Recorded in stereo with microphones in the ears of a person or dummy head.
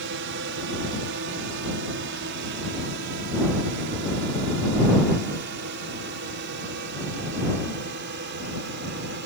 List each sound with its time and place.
0.0 s a drone: 55° right (ahead or behind)